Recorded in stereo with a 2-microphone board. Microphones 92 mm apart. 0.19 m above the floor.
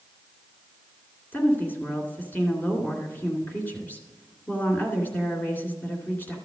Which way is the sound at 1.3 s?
20° left (ahead or behind).